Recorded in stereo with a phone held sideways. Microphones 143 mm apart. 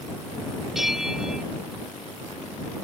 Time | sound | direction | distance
0.8 | a bell | centre (ahead or behind) | ?